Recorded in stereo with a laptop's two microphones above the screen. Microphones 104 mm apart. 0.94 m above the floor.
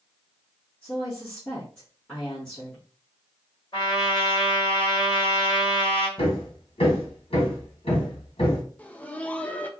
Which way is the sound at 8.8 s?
15° left (ahead or behind).